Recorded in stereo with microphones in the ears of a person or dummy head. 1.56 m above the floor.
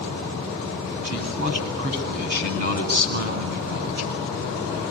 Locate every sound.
1.0 s a man speaking: 40° right (ahead or behind), 10 m; by 4.2 s 50° right (ahead or behind), 10 m